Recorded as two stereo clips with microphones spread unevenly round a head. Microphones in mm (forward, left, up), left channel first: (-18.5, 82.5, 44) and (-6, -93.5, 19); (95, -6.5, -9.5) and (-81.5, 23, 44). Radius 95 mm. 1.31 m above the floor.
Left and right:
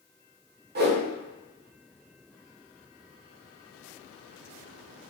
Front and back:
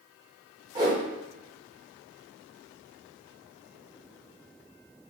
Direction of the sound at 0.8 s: 120° right.